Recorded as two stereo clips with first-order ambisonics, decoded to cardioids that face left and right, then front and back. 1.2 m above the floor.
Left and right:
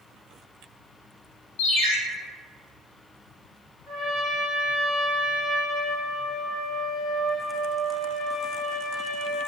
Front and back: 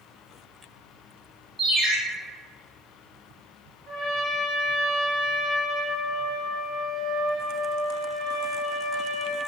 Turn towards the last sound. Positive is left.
turn(degrees=150)